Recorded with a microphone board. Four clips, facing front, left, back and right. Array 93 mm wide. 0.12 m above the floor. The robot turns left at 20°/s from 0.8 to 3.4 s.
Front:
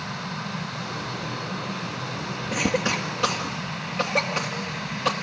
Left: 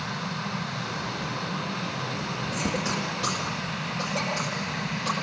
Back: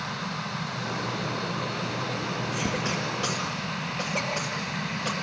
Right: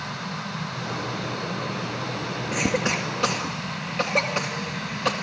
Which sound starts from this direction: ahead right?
A cough, at 2.5 s.